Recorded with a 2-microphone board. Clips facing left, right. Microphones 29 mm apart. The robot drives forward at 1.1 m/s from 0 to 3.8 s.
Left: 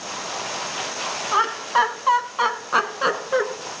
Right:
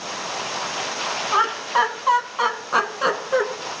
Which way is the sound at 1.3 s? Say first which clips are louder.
Even; 5° left (ahead or behind).